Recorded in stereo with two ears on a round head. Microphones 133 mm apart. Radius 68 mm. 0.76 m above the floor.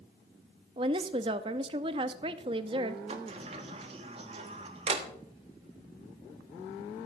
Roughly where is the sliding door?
Right.